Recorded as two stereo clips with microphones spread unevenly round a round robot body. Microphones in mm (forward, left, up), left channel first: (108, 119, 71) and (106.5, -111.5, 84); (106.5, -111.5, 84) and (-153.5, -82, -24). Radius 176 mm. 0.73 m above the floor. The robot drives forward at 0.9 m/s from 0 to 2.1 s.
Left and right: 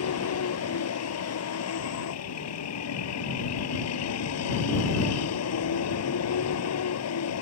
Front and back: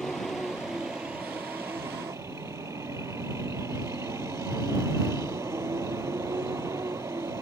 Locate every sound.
0.0 s a vehicle: 80° left; by 7.4 s 90° left